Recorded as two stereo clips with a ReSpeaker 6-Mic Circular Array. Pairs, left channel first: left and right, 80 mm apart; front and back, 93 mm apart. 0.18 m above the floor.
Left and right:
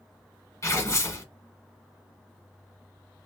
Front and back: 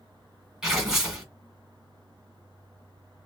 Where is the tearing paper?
100° left, 1.8 m.